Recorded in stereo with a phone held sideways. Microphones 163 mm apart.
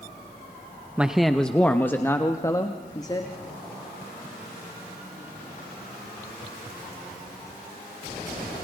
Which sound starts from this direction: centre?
A man speaking, at 1.0 s.